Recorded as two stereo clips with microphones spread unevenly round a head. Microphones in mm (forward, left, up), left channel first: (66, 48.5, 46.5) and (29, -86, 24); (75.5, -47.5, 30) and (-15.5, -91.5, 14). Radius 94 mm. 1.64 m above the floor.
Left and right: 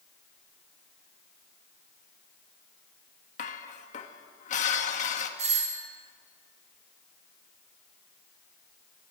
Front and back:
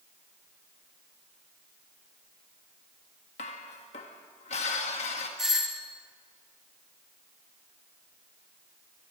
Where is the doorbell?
70° right, 3 m.